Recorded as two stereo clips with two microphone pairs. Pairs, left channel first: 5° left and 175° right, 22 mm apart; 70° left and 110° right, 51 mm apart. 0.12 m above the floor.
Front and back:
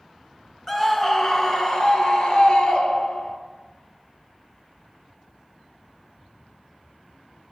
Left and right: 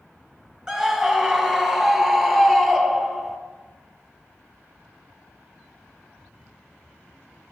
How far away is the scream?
About 1.1 m.